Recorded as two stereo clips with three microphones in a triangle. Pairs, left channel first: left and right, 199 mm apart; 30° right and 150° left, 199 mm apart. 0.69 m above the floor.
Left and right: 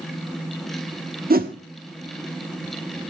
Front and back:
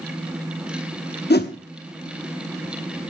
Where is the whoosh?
55° right, 0.9 m.